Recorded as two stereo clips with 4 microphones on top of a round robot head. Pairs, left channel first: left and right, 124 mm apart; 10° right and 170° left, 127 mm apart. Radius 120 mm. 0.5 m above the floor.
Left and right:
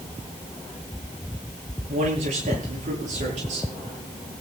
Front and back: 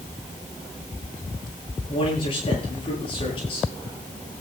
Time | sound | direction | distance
1.9 | a man speaking | 60° right | 10 m